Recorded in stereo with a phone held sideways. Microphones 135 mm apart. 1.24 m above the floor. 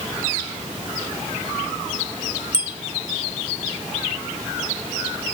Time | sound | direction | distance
2.5 | a bicycle bell | 75° right (ahead or behind) | ?